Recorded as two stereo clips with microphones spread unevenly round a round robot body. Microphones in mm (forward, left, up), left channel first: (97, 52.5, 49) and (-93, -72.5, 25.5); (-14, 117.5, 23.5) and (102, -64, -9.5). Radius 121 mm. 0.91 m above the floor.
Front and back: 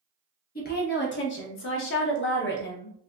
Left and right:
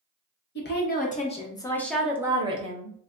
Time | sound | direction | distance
0.6 | a woman speaking | 85° left | 1.1 m